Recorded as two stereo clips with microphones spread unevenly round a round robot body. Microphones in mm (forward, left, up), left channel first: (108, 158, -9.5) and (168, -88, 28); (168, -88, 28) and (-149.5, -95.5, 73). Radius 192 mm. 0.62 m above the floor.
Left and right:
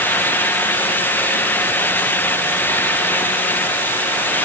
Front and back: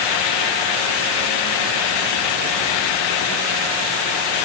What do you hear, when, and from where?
Only background noise.